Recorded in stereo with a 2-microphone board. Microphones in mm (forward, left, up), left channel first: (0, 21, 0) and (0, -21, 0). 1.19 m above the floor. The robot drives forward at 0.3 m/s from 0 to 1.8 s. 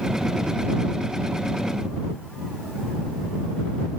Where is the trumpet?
No trumpet in this recording.